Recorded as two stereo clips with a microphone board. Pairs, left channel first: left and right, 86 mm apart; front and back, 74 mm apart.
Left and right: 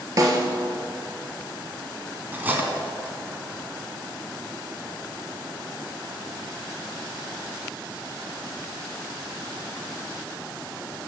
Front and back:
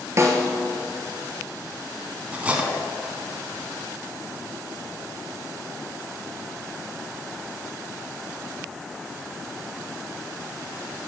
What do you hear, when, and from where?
0.2 s a snare drum: 135° right, 1.3 m
2.3 s cutlery clinking: 130° right, 1.0 m